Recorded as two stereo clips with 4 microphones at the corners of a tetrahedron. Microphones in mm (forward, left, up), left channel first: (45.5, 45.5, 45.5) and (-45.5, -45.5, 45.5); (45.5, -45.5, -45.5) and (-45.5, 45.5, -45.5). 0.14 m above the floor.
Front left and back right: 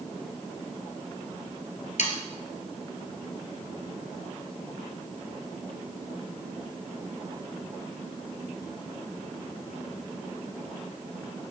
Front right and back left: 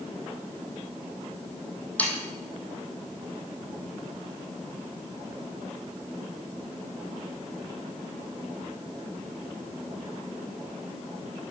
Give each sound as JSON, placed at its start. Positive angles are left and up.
{"t": 2.0, "sound": "sawing", "azimuth_deg": 35, "distance_m": 1.8}